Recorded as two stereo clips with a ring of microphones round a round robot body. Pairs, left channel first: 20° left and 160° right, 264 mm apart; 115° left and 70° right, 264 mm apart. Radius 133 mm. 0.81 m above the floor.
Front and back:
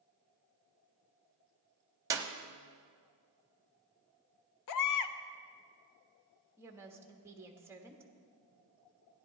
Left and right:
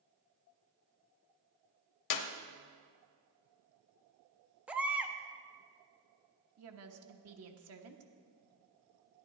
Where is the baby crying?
20° left, 0.6 m.